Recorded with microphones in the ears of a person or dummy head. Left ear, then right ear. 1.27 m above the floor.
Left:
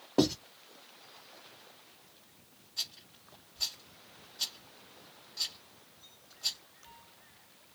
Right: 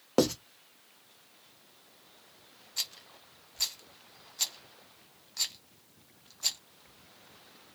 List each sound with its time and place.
0.2 s writing: 50° right (ahead or behind), 0.8 m
2.8 s a rattle: 55° right (ahead or behind), 0.8 m